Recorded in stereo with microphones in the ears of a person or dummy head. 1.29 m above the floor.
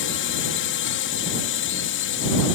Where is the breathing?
I don't hear breathing.